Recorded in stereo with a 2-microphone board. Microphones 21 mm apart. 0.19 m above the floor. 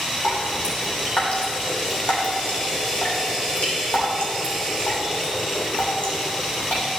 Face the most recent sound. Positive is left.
turn(degrees=75)  # may be behind; listen again after turning